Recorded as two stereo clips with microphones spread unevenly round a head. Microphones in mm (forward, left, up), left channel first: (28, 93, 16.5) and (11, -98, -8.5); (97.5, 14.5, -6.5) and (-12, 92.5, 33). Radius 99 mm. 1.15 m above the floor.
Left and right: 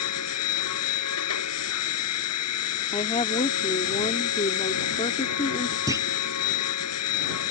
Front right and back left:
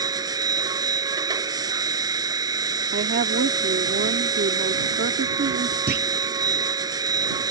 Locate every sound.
0.0 s a machine running: 80° left
2.9 s a woman speaking: 150° left
5.9 s a clunk: 170° right